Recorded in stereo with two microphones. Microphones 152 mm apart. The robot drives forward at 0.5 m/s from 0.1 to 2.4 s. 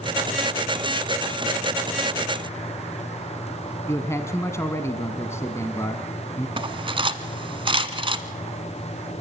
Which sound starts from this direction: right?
Cutlery clinking, at 6.6 s.